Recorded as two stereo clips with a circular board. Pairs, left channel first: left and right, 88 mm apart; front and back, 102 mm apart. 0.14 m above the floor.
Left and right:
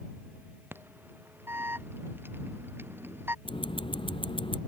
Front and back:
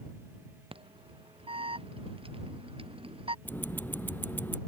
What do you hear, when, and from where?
0.7 s an alarm: 155° right
3.5 s ticking: 70° left